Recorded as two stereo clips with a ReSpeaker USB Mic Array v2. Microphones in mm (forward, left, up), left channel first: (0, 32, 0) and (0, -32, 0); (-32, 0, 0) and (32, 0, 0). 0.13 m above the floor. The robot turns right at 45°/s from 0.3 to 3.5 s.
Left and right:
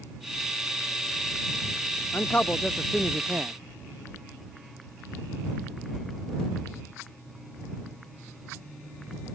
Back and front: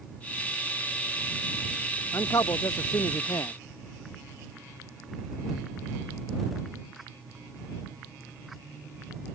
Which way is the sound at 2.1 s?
145° left.